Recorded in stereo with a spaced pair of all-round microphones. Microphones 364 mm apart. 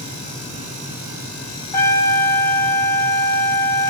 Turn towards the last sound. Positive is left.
turn(degrees=10)  # may be behind; listen again after turning